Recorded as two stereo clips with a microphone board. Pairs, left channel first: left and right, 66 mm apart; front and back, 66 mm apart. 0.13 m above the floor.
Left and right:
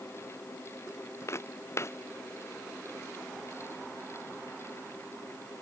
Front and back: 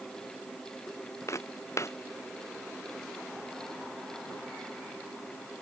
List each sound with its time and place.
1.3 s footsteps: 40° left